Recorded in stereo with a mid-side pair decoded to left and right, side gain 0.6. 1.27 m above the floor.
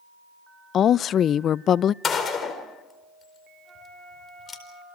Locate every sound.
0.7 s a woman speaking: 50° left, 0.5 m
2.0 s a gunshot: 35° left, 4.5 m
3.6 s a flute: 20° right, 6.5 m